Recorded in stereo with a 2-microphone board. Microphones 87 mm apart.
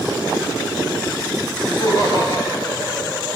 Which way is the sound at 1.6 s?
50° left (ahead or behind).